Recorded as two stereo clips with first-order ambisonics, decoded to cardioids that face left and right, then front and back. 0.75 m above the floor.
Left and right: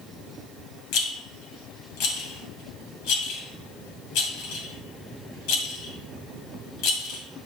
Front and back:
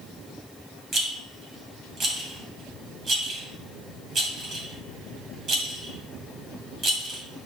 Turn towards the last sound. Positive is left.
turn(degrees=115)